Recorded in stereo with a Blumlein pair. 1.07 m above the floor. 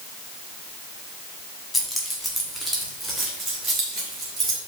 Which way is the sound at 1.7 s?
5° left.